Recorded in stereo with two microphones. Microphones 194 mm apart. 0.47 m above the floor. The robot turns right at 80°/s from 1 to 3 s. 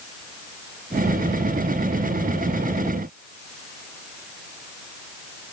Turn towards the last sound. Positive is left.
No sound to turn to.